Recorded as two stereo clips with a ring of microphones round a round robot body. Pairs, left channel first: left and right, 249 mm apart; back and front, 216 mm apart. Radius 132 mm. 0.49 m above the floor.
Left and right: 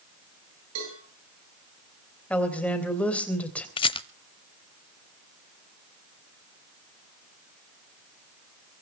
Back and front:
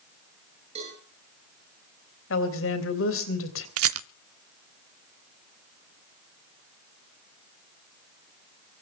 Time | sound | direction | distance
0.8 | a cowbell | 65° right | 9.5 m
2.3 | a woman speaking | 175° left | 3.5 m
3.8 | a rattle | 20° left | 0.5 m